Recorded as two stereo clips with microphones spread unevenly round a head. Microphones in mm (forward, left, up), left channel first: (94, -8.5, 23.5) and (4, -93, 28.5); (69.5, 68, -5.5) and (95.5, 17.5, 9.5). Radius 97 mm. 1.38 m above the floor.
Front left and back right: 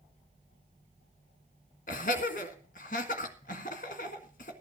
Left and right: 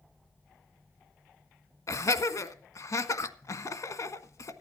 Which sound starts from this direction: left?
Laughter, at 1.9 s.